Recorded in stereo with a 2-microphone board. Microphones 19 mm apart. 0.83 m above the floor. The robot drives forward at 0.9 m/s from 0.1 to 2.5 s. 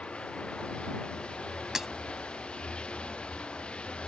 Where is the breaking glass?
20° right (ahead or behind).